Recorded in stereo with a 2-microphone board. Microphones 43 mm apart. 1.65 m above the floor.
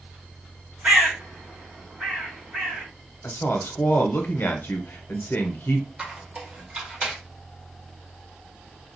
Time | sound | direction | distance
0.8 | a bird | 30° right (ahead or behind) | 2 m
3.2 | a woman speaking | 55° left (ahead or behind) | 0.8 m
6.0 | a squeak | 30° right (ahead or behind) | 1.2 m